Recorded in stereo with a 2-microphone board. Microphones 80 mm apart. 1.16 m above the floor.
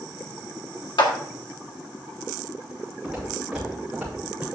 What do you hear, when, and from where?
1.0 s a clap: 70° left (ahead or behind), 2 m
3.0 s footsteps: centre (ahead or behind), 5 m; by 4.5 s 15° right (ahead or behind), 5 m